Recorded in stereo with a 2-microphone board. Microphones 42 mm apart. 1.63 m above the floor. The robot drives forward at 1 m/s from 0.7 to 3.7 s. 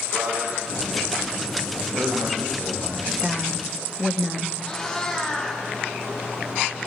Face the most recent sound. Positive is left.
turn(degrees=10)  # may be behind; listen again after turning